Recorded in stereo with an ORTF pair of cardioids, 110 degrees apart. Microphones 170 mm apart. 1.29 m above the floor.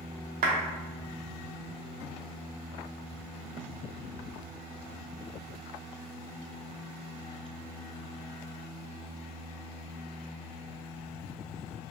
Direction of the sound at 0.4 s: 60° right.